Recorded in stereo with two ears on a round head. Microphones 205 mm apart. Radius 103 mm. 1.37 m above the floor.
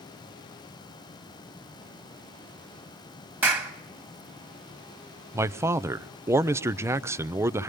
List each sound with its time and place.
3.4 s a clap: 10° right (ahead or behind), 1.7 m
5.3 s a man speaking: 10° right (ahead or behind), 0.5 m